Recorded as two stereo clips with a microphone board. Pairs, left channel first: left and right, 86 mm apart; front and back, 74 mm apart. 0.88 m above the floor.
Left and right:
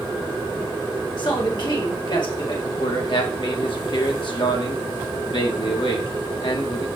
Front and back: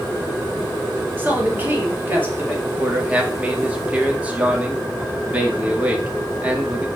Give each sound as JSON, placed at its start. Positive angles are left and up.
{"t": 1.2, "sound": "a man speaking", "azimuth_deg": 115, "distance_m": 2.5}
{"t": 2.6, "sound": "a man speaking", "azimuth_deg": 110, "distance_m": 1.9}